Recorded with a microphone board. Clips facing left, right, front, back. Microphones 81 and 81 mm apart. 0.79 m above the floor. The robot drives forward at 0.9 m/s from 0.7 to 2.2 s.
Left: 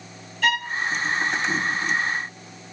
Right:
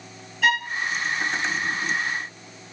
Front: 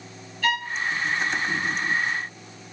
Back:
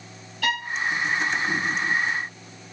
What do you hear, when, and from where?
0.4 s a violin: 175° right, 5.5 m